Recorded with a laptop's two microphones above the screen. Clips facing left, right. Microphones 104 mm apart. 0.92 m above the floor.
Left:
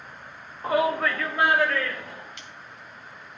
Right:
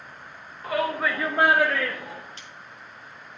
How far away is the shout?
About 0.8 m.